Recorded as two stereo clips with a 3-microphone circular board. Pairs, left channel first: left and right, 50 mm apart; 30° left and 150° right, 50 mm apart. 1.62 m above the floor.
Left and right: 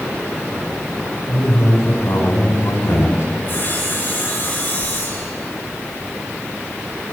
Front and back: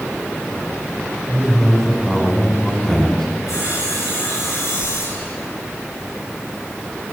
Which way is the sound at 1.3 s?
110° left.